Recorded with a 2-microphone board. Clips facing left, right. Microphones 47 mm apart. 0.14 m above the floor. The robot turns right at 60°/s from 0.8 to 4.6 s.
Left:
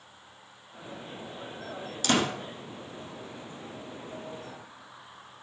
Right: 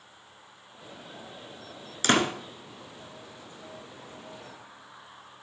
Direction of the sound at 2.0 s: 45° right (ahead or behind).